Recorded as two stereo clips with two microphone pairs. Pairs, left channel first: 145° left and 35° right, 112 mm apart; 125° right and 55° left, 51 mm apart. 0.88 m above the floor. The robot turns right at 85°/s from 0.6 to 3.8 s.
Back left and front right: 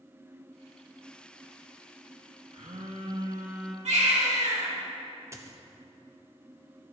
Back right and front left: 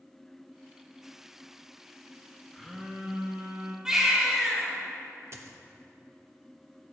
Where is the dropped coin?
30° left, 0.7 m.